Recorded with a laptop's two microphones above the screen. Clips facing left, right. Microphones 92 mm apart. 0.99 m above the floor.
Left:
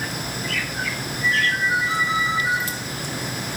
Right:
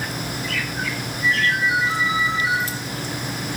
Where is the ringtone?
75° right (ahead or behind), 9 m.